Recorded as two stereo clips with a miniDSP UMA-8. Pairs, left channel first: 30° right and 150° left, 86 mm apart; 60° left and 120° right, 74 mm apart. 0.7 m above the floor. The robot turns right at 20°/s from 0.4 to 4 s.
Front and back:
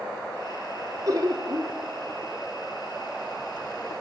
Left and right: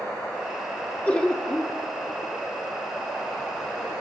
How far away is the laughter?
About 1.1 m.